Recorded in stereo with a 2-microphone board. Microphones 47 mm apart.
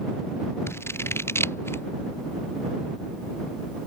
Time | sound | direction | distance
0.7 | scissors | 65° left (ahead or behind) | ?